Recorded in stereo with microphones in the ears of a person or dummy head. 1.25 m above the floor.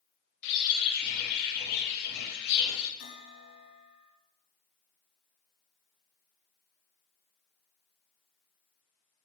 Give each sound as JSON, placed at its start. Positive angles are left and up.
{"t": 0.4, "sound": "a bird", "side_deg": 60, "distance_m": 2.5}
{"t": 3.0, "sound": "a bell", "side_deg": 50, "distance_m": 3.0}